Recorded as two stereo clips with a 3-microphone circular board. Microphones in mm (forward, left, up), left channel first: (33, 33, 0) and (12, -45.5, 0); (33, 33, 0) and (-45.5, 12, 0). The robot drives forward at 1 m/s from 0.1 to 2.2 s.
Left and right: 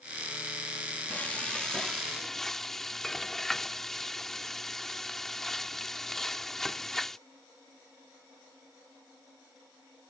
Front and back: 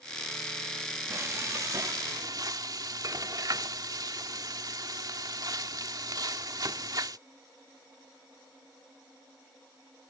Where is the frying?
145° left; by 7.2 s 160° left.